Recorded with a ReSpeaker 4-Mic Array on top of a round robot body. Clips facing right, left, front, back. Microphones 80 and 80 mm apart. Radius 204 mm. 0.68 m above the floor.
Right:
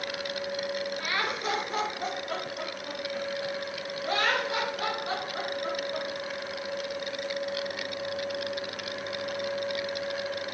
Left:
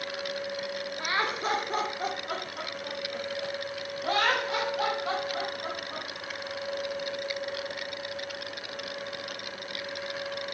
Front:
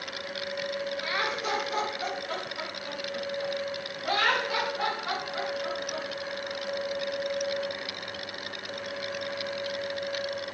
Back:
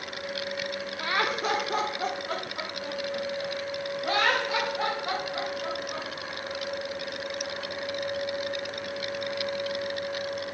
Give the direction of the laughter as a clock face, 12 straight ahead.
7 o'clock.